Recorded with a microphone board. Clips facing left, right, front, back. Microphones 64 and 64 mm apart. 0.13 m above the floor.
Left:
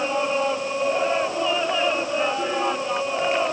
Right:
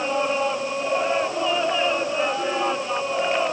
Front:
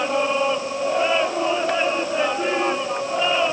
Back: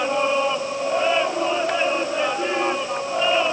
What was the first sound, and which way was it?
Only background noise.